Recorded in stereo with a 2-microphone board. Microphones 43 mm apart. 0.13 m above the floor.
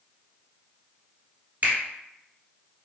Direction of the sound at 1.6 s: 40° right (ahead or behind).